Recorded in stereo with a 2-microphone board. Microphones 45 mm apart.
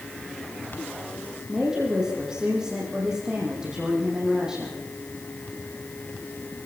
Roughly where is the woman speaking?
Centre.